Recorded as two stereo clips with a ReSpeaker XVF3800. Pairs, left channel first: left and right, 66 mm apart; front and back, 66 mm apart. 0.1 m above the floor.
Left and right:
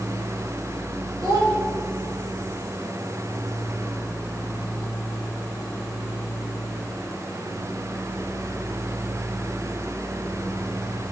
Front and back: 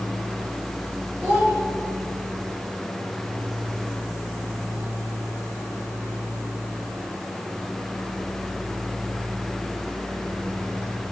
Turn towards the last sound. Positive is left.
turn(degrees=-110)